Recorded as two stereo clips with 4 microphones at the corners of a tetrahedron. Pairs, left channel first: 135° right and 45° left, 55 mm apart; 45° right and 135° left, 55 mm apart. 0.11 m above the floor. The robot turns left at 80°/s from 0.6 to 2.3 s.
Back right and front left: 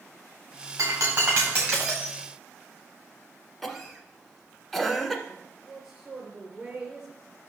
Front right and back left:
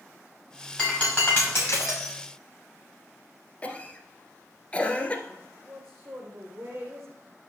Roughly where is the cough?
Ahead right.